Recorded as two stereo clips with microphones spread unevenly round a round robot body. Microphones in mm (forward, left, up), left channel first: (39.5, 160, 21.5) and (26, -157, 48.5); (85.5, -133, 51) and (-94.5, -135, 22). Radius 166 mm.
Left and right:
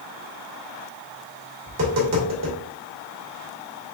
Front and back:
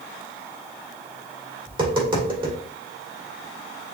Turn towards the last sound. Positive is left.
turn(degrees=-130)